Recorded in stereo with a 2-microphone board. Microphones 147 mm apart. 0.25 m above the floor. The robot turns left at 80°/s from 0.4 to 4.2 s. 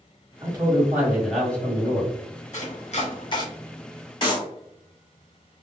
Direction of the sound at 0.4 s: 110° right.